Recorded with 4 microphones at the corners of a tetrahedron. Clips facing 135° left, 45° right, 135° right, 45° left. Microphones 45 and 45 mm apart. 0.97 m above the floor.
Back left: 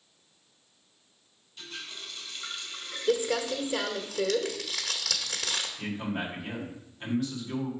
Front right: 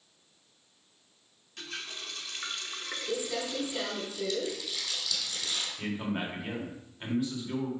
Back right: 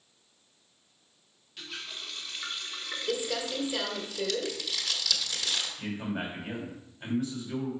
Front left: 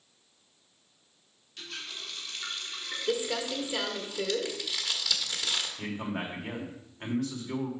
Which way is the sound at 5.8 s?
30° left.